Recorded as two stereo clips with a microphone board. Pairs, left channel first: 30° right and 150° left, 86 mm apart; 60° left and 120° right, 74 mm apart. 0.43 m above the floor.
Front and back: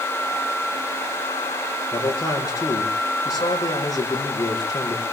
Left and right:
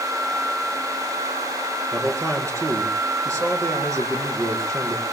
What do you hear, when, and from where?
1.9 s a man speaking: 75° right, 6.5 m